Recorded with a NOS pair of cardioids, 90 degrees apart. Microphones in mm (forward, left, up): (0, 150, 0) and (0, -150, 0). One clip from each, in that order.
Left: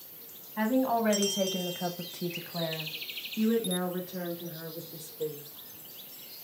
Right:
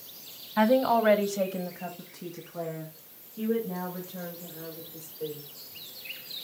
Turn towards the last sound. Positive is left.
turn(degrees=80)